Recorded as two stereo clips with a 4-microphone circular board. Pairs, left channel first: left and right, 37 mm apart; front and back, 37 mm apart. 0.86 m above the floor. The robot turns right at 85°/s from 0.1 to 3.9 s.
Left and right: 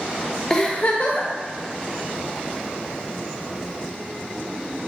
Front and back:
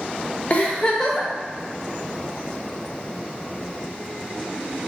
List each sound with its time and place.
0.5 s a giggle: 15° left, 0.6 m; by 1.3 s 85° left, 0.6 m